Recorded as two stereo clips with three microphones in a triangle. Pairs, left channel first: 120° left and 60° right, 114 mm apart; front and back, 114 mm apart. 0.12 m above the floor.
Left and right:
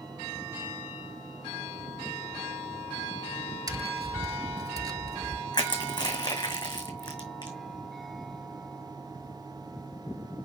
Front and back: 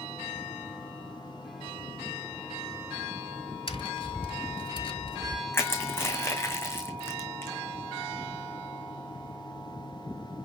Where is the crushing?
70° left, 2.5 m.